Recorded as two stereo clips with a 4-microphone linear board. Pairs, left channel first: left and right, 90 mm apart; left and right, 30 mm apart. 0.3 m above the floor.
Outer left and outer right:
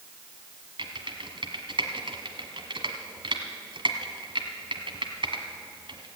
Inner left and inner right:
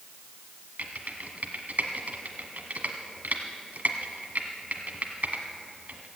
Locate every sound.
0.8 s typing on a keyboard: 65° right (ahead or behind), 1.5 m